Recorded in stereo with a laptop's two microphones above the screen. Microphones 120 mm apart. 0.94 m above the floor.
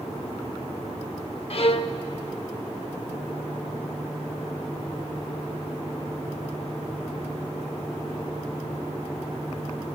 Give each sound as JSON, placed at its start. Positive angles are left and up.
{"t": 1.5, "sound": "a violin", "side_deg": 55, "distance_m": 0.8}